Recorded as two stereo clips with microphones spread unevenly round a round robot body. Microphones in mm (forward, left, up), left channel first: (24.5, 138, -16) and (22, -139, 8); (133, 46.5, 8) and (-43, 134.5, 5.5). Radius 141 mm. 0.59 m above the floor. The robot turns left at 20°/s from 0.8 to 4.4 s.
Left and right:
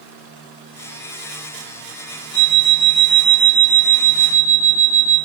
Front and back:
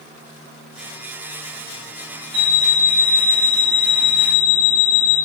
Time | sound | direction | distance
2.3 | an alarm clock | 140° right | 2 m